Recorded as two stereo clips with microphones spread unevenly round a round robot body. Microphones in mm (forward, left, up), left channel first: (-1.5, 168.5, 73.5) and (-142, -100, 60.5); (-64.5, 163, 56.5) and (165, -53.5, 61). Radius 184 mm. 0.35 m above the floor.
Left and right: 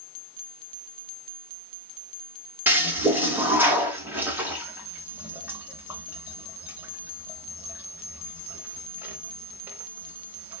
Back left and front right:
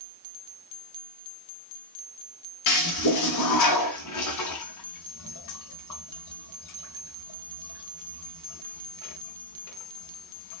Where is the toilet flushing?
160° left, 1.3 m.